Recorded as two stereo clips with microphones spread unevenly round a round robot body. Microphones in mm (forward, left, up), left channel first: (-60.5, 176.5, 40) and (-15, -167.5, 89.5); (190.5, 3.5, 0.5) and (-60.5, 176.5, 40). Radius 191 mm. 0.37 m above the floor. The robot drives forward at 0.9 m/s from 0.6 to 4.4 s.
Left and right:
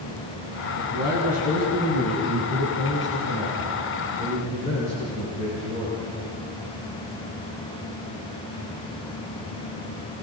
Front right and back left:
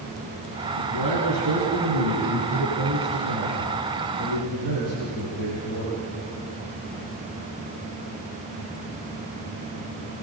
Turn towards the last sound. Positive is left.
turn(degrees=155)